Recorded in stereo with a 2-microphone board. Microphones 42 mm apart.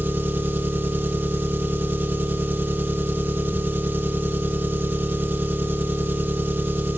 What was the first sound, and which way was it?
An engine running, 55° right (ahead or behind).